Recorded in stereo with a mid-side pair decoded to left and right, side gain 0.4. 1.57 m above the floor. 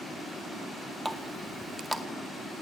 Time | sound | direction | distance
1.1 | a running tap | 10° right | 2 m